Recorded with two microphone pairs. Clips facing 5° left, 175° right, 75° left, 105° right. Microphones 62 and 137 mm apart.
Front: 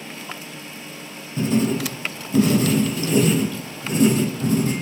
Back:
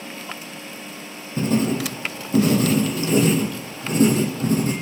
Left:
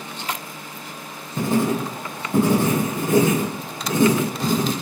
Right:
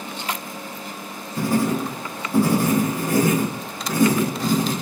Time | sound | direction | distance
1.4 | writing | 140° left | 0.7 m